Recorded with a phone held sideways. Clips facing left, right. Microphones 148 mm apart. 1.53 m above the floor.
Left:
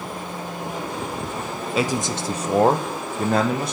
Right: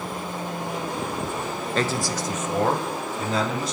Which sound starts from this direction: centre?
A man speaking, at 1.8 s.